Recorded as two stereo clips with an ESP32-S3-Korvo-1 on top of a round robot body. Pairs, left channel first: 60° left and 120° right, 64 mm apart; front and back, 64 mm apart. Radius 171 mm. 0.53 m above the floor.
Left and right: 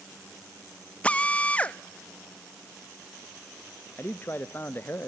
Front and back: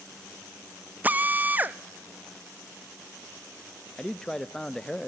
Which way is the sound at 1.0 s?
125° left.